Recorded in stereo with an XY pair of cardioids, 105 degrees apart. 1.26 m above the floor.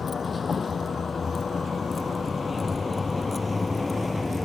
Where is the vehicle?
35° left; by 4.5 s 15° left.